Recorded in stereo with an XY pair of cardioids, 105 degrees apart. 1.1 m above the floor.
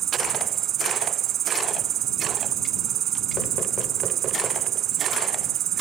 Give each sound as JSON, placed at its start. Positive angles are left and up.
{"t": 0.0, "sound": "an insect", "azimuth_deg": -65}